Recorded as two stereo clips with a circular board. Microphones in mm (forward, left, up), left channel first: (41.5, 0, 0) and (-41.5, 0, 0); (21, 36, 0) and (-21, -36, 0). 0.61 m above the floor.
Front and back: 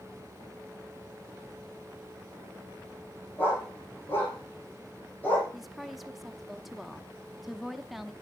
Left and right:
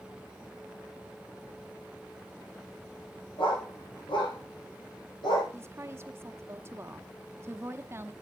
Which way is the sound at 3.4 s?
65° left.